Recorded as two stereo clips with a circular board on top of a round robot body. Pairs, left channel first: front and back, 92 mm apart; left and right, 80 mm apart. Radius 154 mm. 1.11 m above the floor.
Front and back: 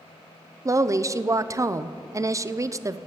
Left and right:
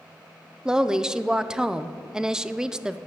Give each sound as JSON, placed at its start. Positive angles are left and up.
{"t": 0.7, "sound": "a woman speaking", "azimuth_deg": -165, "distance_m": 0.6}